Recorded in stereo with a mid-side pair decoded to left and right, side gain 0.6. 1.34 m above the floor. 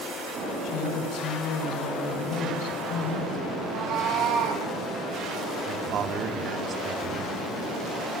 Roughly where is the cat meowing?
Ahead right.